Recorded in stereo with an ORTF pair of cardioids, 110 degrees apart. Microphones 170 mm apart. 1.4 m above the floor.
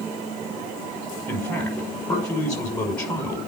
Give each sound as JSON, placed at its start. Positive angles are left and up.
{"t": 1.3, "sound": "a man speaking", "azimuth_deg": 10, "distance_m": 5.5}